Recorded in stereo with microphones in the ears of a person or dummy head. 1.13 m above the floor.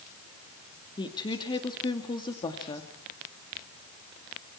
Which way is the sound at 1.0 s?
25° left (ahead or behind).